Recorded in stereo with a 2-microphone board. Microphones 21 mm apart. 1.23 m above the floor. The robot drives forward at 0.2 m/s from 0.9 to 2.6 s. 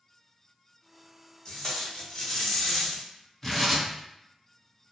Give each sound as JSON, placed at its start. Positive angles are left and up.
{"t": 1.4, "sound": "tape being pulled", "side_deg": 40, "distance_m": 1.1}
{"t": 3.4, "sound": "tearing paper", "side_deg": 15, "distance_m": 1.3}